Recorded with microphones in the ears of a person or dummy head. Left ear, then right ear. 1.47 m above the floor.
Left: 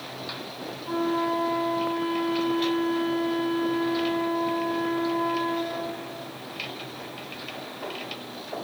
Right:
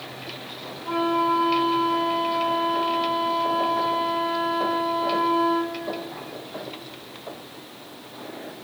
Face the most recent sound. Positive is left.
turn(degrees=-25)  # may be behind; listen again after turning